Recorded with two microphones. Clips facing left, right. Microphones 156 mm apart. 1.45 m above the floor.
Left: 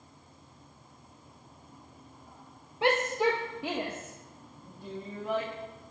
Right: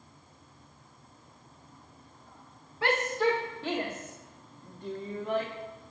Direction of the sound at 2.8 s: 20° left (ahead or behind).